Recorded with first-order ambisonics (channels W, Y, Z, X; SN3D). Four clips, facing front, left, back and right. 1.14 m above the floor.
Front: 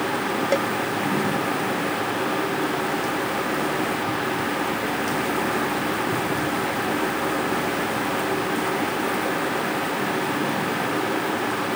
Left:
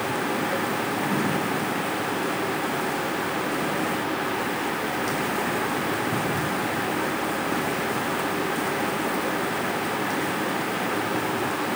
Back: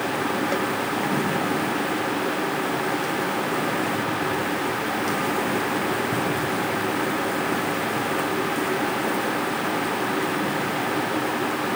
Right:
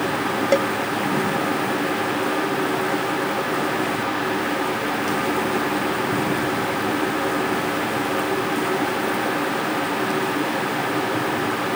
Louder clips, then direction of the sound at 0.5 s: Right 8 dB, front 2 dB; 70° right.